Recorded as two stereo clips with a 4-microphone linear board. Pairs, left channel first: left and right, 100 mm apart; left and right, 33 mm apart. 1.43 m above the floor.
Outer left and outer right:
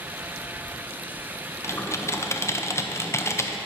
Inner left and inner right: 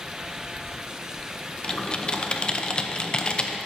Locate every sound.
1.6 s typing on a keyboard: 30° left (ahead or behind), 0.6 m